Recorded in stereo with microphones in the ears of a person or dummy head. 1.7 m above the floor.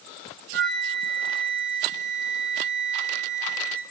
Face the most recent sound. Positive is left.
turn(degrees=-65)  # may be behind; listen again after turning